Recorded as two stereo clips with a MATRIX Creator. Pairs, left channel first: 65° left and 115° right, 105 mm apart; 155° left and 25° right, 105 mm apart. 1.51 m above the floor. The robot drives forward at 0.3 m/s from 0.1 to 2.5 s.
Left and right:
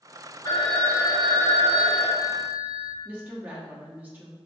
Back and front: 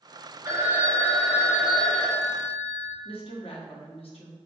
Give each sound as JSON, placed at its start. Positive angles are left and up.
{"t": 0.5, "sound": "a phone ringing", "azimuth_deg": 30, "distance_m": 0.8}
{"t": 3.0, "sound": "a woman speaking", "azimuth_deg": 175, "distance_m": 0.9}